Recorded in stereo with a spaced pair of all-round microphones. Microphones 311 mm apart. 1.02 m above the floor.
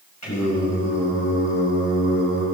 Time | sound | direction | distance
0.2 | singing | 65° left (ahead or behind) | 6 m